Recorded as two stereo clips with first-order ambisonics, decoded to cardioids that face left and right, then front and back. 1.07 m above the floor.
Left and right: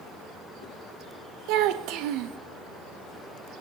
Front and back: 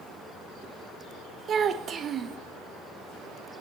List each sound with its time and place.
1.5 s a child speaking: 115° right, 0.6 m